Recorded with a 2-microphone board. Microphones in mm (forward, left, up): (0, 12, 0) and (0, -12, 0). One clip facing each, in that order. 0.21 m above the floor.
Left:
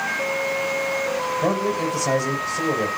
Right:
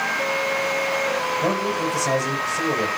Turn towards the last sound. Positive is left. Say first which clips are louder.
# even
turn(degrees=20)  # may be behind; listen again after turning